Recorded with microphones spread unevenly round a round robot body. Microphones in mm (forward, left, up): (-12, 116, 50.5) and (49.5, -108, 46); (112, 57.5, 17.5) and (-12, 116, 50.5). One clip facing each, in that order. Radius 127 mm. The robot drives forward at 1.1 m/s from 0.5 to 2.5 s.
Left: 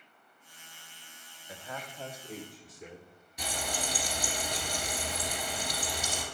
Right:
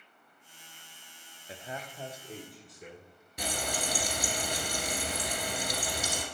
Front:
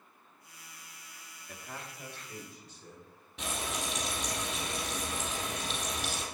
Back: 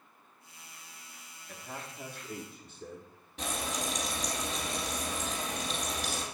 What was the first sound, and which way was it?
A man speaking, 60° right.